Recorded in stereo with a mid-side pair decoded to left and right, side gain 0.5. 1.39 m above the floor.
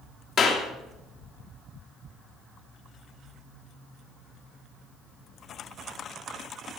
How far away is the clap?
About 3 m.